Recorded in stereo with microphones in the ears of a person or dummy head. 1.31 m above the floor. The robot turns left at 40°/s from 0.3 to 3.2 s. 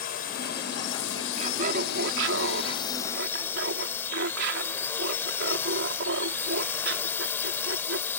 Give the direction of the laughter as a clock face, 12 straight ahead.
1 o'clock.